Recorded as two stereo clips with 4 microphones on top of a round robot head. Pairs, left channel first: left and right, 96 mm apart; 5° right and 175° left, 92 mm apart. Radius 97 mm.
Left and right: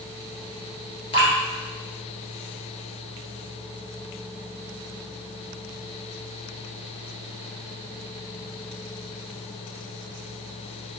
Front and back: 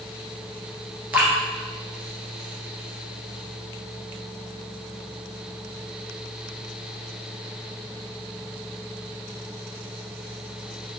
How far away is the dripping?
About 1.8 m.